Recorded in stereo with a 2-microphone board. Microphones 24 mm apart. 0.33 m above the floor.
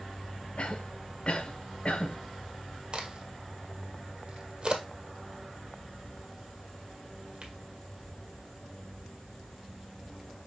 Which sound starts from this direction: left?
A cough, at 0.6 s.